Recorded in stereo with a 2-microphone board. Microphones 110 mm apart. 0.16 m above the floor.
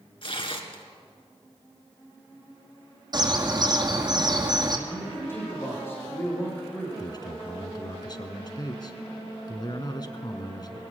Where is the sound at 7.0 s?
40° left (ahead or behind), 1.3 m.